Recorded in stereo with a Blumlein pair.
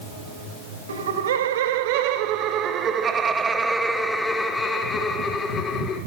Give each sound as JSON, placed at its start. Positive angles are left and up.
{"t": 0.9, "sound": "laughter", "azimuth_deg": -65, "distance_m": 2.5}